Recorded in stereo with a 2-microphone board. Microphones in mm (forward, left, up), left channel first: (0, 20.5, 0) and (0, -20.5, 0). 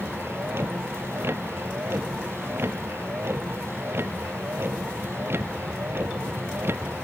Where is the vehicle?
80° right.